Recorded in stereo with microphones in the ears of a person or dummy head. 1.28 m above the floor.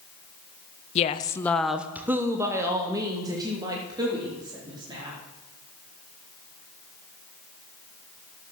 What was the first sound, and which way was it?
A woman speaking, 35° left (ahead or behind).